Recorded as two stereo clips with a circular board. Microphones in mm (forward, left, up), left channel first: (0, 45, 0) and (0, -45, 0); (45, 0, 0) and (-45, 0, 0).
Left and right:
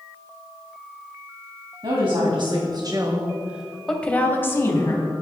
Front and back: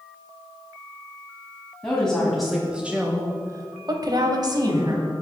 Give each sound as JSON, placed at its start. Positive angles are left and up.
{"t": 1.8, "sound": "a woman speaking", "azimuth_deg": -80, "distance_m": 2.5}